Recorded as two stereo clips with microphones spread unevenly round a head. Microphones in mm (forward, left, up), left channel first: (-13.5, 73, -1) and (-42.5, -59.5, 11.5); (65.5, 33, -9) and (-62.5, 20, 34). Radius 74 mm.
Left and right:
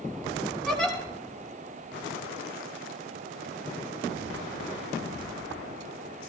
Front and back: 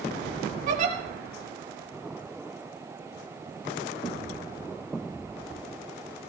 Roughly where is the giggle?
Behind.